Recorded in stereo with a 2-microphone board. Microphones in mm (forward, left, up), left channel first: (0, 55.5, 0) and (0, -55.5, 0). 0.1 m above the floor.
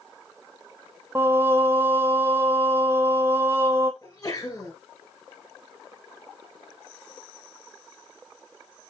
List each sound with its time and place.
1.1 s singing: 20° right (ahead or behind), 0.5 m
4.0 s a sneeze: 35° left (ahead or behind), 1.7 m